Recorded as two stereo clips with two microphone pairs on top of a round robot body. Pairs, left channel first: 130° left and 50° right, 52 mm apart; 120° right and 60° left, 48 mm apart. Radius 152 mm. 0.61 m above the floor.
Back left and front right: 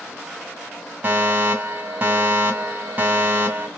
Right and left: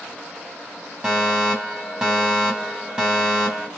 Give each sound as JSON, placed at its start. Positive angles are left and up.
{"t": 1.0, "sound": "a fire alarm", "azimuth_deg": -5, "distance_m": 2.0}